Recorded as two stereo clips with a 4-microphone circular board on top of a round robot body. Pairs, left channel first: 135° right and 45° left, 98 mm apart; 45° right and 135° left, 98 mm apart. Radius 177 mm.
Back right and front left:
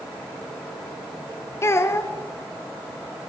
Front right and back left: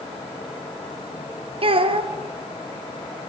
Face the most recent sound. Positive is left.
turn(degrees=160)